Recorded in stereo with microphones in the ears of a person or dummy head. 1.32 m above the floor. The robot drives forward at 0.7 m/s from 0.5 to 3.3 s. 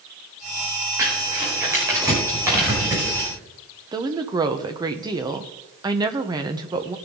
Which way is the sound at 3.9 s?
25° right (ahead or behind).